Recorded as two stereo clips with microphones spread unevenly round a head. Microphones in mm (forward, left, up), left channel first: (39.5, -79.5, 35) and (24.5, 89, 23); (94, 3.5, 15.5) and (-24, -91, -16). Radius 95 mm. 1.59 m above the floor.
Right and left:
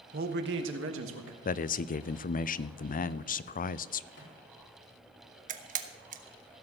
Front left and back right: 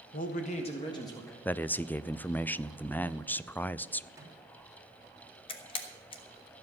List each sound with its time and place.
0.1 s a man speaking: 60° left, 1.2 m; by 1.4 s 115° left, 2 m
1.4 s a man speaking: 45° right, 0.5 m
4.1 s a microwave: 70° right, 3.5 m
5.5 s a camera shutter: 65° left, 1.0 m